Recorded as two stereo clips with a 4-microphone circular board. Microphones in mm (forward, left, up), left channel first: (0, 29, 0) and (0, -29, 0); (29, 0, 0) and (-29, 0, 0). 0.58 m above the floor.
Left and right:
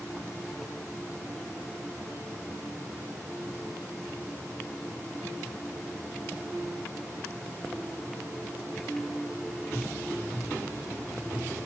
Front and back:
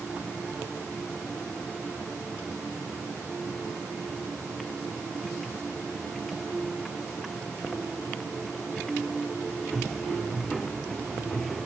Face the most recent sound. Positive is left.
No sound to turn to.